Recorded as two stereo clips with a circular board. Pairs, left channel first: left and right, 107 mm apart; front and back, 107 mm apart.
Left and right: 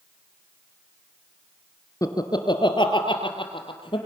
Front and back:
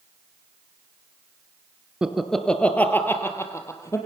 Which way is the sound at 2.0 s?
105° left.